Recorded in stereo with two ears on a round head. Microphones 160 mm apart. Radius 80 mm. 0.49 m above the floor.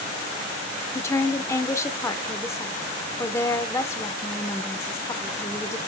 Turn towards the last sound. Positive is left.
turn(degrees=15)  # may be behind; listen again after turning